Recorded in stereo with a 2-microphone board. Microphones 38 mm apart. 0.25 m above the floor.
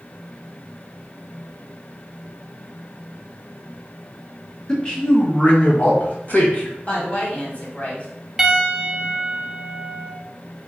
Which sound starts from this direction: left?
A woman speaking, at 6.9 s.